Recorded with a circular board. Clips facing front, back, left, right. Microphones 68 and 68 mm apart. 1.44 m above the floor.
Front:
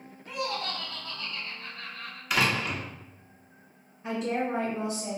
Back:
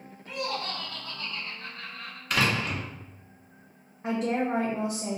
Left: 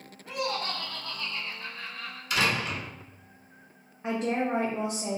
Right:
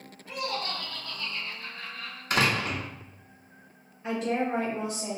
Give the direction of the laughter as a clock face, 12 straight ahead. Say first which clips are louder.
Even, left 1 dB; 9 o'clock.